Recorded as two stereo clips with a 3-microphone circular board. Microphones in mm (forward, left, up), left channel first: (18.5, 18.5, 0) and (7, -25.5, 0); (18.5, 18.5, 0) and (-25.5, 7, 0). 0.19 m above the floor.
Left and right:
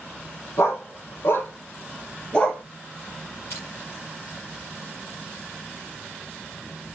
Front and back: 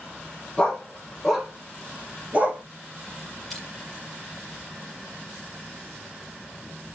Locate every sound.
0.6 s a dog barking: 95° left, 1.6 m; by 2.6 s 150° left, 1.4 m
3.5 s crushing: 105° left, 4 m